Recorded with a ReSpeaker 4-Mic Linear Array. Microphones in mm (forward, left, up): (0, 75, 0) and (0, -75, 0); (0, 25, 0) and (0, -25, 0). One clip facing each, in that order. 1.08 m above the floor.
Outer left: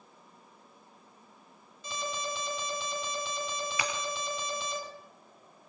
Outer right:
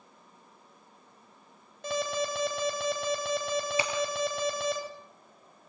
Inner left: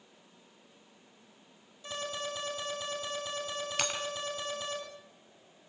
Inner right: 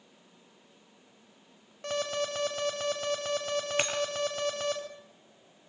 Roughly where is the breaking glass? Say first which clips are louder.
Outer right 4 dB, inner right 1 dB; right.